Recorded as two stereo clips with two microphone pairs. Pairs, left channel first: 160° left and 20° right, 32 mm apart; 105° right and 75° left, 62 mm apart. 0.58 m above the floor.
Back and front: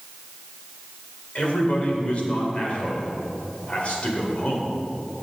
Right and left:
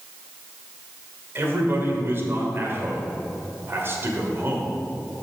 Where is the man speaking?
120° left, 2.5 m.